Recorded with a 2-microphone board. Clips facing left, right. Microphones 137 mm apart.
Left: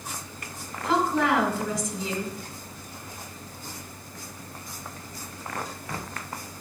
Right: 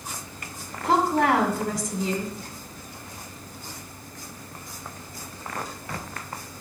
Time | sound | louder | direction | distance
0.8 | a woman speaking | right 2 dB | 60° right (ahead or behind) | 2.0 m